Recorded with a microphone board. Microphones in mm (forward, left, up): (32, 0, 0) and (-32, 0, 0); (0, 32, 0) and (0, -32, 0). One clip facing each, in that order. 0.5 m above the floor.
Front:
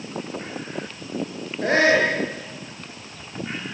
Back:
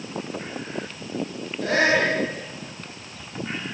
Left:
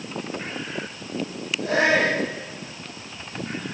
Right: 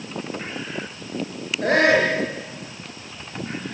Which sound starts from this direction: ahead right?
A shout, at 1.6 s.